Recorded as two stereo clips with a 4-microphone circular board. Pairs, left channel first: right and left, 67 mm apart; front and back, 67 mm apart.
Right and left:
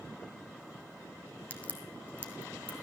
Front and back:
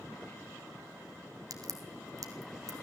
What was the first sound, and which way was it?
A crack, 160° right.